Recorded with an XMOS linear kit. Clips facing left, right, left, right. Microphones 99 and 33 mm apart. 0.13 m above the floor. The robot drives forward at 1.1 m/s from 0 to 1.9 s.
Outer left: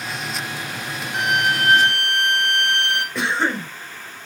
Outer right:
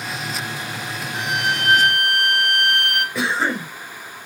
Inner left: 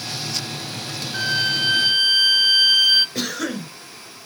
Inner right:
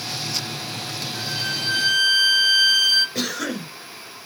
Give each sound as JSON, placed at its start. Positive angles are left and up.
{"t": 1.1, "sound": "a violin", "side_deg": 60, "distance_m": 0.6}
{"t": 3.1, "sound": "a cough", "side_deg": 0, "distance_m": 1.7}